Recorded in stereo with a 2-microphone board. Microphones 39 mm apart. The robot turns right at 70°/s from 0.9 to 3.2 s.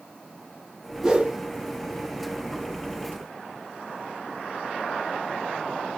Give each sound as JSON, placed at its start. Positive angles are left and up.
{"t": 1.0, "sound": "a whoosh", "side_deg": -15, "distance_m": 0.8}